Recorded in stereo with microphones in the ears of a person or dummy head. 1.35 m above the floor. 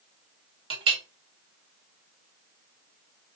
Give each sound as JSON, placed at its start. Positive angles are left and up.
{"t": 0.7, "sound": "a clink", "side_deg": -25, "distance_m": 0.8}